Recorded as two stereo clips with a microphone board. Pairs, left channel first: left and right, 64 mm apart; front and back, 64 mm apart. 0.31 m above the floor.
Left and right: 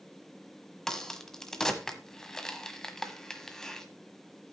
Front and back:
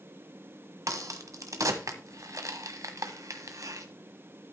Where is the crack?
170° left, 1.3 m.